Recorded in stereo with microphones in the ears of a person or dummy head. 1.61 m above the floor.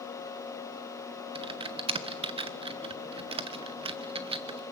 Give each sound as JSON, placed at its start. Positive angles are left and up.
{"t": 1.4, "sound": "typing on a keyboard", "side_deg": -20, "distance_m": 0.6}